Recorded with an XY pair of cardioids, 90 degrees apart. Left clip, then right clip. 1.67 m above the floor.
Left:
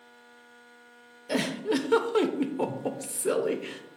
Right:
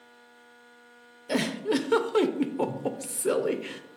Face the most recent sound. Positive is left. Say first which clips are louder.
# right 1 dB
turn(degrees=-15)